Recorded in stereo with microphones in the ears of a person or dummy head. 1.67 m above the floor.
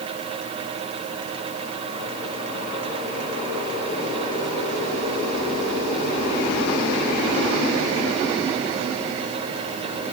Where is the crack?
I don't hear a crack.